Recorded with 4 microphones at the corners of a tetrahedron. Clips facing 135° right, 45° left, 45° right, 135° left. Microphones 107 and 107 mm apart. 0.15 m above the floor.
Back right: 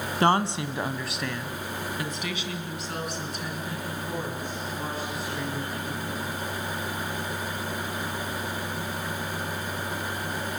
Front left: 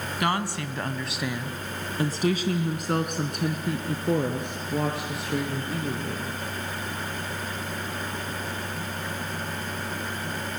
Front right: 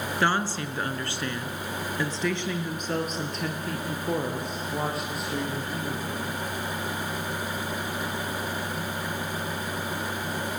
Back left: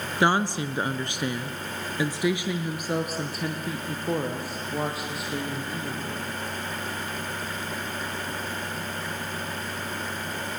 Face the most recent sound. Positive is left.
turn(degrees=45)